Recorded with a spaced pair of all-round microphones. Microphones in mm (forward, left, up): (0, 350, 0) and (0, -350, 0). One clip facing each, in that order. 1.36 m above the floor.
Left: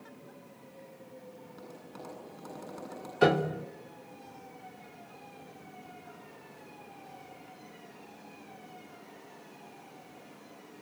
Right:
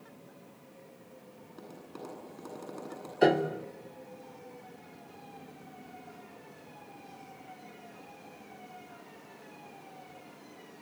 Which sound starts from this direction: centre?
Tapping, at 1.5 s.